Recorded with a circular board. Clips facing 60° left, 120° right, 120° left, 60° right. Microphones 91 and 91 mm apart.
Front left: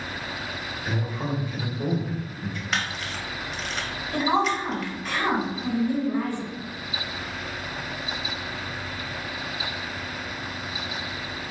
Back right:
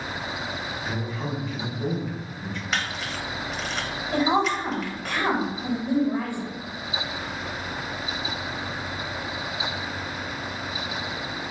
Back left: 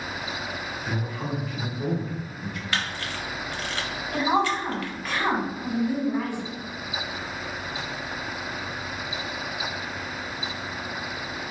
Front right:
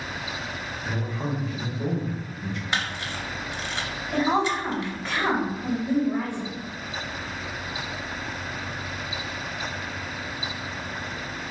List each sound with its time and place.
0.8 s a man speaking: 10° right, 1.0 m
2.7 s a camera shutter: 30° right, 0.5 m
4.1 s a woman speaking: 120° right, 1.6 m